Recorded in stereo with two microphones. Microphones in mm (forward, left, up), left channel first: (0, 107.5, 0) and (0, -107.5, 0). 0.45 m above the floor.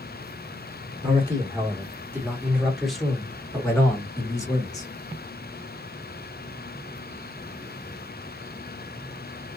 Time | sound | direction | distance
1.0 | a man speaking | 25° right (ahead or behind) | 1.3 m